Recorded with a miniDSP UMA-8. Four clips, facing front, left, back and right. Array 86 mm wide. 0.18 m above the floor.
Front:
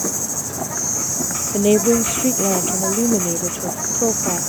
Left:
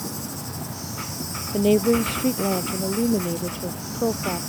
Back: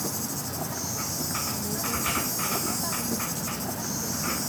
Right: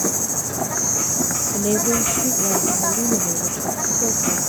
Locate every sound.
0.0 s an insect: 60° right
1.5 s a woman speaking: 15° left